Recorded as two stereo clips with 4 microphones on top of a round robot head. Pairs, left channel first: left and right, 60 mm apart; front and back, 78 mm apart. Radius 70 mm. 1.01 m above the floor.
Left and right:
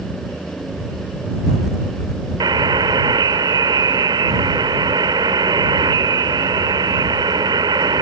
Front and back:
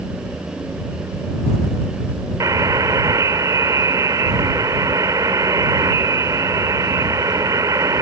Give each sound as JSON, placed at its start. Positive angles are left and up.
{"t": 2.4, "sound": "a buzzer", "azimuth_deg": -120}